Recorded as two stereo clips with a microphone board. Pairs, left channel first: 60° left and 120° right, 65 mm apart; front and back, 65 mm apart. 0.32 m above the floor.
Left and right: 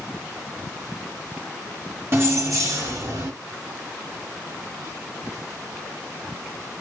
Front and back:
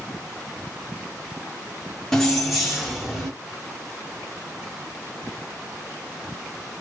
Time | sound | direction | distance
2.1 | keys jangling | 80° right | 1.4 m